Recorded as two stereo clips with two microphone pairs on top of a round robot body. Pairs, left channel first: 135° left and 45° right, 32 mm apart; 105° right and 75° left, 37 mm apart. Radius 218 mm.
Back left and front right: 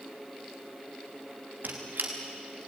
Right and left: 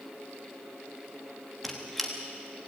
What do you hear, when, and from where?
1.6 s a squeak: 25° right, 1.0 m